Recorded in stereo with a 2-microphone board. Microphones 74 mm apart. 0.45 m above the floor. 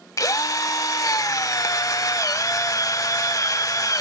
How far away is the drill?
About 0.8 m.